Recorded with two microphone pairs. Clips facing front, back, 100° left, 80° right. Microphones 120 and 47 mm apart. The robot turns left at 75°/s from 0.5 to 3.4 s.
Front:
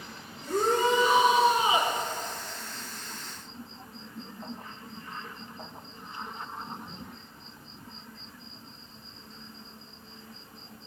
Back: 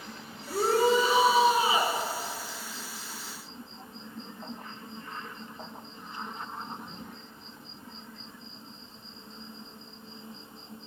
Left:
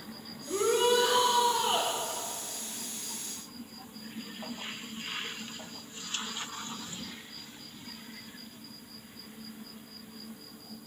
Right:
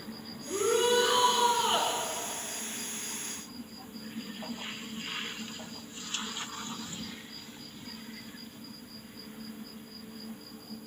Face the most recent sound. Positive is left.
turn(degrees=170)